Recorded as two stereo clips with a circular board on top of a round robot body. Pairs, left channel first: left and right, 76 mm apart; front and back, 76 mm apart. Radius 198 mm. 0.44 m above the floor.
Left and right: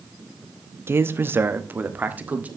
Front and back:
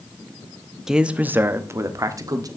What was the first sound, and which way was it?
A man speaking, 100° right.